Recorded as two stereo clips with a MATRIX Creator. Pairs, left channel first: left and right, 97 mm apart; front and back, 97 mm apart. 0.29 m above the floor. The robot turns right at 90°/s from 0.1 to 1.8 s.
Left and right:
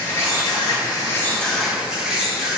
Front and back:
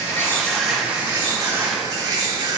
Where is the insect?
40° left, 1.9 m; by 2.6 s 165° right, 1.9 m.